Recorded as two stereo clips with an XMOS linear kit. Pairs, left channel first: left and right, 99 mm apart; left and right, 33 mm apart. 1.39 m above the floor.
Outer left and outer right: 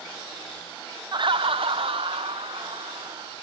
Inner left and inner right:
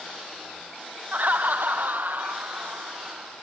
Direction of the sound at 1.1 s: 45° right (ahead or behind).